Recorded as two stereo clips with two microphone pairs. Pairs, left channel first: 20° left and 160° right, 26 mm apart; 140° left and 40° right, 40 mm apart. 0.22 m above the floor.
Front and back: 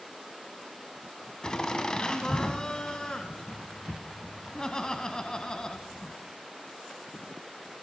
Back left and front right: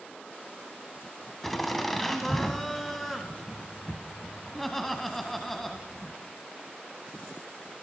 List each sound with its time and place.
1.4 s laughter: 60° left, 1.2 m